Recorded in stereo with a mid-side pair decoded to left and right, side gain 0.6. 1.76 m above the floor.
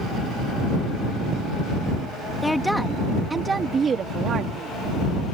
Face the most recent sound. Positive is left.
turn(degrees=-55)